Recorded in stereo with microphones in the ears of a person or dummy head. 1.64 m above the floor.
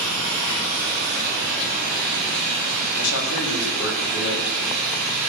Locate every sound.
0.0 s an engine running: 60° left (ahead or behind), 8 m
3.0 s a man speaking: 90° left, 4 m